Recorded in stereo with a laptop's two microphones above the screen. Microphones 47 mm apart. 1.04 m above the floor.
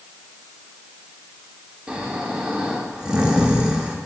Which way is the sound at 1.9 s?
20° right (ahead or behind).